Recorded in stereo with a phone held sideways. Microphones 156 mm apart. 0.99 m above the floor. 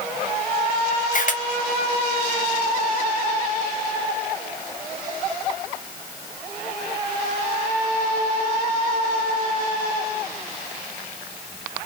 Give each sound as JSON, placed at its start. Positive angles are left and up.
{"t": 1.1, "sound": "a camera shutter", "side_deg": 55, "distance_m": 0.7}